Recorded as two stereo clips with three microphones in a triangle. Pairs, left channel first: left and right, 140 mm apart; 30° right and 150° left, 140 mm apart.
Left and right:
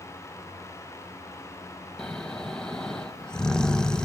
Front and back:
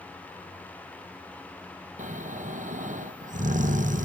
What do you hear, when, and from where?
2.0 s snoring: 175° left, 0.7 m